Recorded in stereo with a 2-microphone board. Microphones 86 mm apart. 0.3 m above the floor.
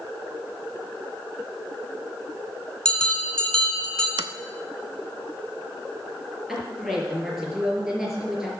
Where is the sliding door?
80° right, 0.5 m.